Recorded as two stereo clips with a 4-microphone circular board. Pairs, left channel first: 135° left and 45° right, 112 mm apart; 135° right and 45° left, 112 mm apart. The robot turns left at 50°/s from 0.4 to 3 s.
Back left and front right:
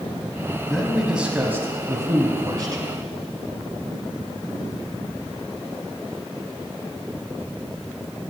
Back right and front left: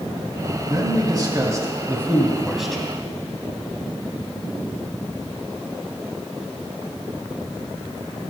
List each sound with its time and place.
0.7 s a man speaking: 55° left, 1.1 m; by 2.9 s 55° right, 1.1 m